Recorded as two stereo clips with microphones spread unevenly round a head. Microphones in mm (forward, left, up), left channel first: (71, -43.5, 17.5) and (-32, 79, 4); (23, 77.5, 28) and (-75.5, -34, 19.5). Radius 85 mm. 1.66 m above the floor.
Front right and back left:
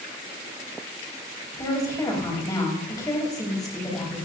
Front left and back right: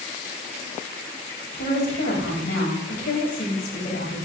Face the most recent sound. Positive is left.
turn(degrees=20)